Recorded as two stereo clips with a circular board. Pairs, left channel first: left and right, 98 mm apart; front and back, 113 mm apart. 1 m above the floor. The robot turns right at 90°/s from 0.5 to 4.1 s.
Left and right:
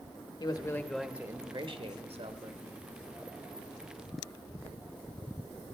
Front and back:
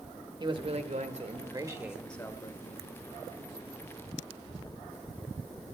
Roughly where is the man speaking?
Behind left.